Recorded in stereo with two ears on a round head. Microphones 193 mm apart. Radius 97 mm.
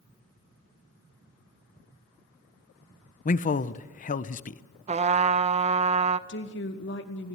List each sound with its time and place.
3.2 s a man speaking: 35° left (ahead or behind), 0.7 m
4.9 s a trumpet: 30° right (ahead or behind), 0.8 m
6.3 s a woman speaking: 50° left (ahead or behind), 2.5 m